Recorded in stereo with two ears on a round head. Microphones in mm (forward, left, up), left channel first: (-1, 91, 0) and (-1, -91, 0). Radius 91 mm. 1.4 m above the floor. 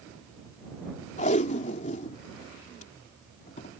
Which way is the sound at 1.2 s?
35° left (ahead or behind).